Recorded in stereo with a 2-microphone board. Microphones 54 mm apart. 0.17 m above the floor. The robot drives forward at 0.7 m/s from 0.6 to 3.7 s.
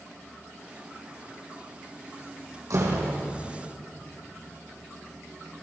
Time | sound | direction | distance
2.7 | a door slam | 80° right | 5.5 m